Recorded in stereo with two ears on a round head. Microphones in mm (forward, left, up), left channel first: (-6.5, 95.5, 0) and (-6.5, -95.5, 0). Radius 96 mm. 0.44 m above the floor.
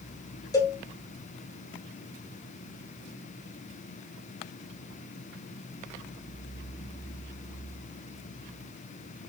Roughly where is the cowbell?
Centre.